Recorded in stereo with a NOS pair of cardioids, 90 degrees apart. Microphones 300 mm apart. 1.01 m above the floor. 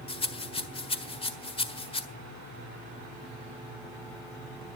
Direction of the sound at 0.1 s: 20° left.